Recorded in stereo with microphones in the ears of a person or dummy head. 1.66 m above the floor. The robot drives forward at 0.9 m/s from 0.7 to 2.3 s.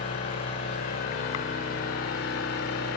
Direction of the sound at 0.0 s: 45° left (ahead or behind).